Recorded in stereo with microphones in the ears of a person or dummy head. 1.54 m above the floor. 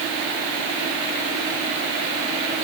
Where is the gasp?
No gasp in this recording.